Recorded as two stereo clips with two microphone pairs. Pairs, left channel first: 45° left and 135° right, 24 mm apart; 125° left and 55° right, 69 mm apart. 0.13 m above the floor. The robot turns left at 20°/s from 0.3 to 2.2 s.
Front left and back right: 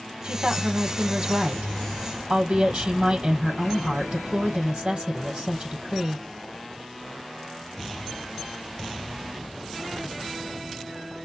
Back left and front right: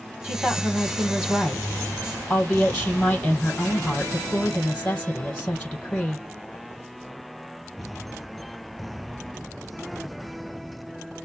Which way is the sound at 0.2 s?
125° right.